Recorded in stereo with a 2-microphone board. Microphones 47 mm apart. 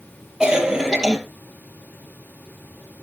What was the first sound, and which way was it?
A cough, 15° right (ahead or behind).